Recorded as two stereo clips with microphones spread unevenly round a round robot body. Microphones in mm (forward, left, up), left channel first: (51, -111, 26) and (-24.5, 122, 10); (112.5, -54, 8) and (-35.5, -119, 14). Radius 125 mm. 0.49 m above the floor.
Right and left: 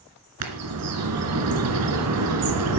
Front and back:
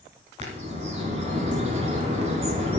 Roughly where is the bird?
Behind left.